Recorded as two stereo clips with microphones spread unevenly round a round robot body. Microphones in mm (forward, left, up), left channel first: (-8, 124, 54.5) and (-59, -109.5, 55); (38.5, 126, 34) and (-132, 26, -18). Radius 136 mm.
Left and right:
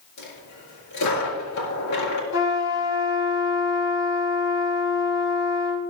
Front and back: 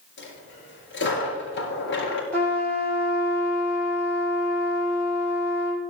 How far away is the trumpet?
About 6 m.